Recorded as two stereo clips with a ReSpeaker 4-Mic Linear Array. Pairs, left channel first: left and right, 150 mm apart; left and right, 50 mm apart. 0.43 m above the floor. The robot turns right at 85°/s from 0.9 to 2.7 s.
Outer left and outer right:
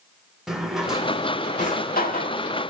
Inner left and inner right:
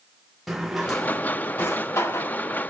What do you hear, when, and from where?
0.5 s a drawer: 5° right (ahead or behind), 0.7 m; by 2.4 s 55° left (ahead or behind), 0.7 m